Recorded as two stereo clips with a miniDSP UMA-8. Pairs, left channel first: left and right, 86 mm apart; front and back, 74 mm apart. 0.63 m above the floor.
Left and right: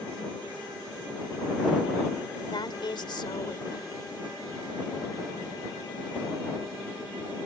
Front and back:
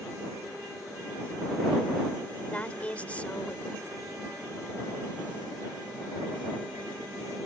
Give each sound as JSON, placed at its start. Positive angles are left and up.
{"t": 2.5, "sound": "a woman speaking", "azimuth_deg": 70}